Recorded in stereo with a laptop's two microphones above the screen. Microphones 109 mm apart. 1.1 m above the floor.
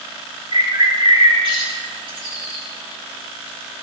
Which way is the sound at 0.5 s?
50° right (ahead or behind).